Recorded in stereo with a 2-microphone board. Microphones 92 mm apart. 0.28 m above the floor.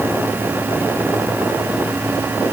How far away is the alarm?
No alarm in this recording.